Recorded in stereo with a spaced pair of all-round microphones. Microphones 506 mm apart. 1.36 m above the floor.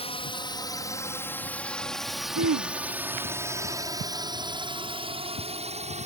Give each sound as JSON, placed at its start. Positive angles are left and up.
{"t": 0.0, "sound": "a drone", "side_deg": 10}
{"t": 2.4, "sound": "throat clearing", "side_deg": -40}